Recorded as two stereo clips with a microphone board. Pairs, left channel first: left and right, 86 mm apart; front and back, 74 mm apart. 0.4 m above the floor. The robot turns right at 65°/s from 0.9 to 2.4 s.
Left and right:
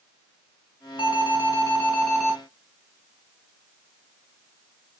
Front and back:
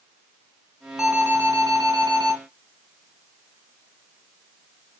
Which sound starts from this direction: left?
An alarm, at 1.0 s.